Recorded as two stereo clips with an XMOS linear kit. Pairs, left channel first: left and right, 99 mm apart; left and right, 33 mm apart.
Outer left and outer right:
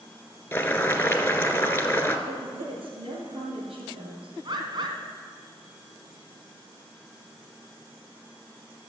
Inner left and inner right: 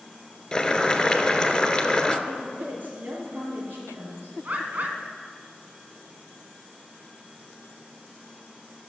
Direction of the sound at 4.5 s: 55° right (ahead or behind).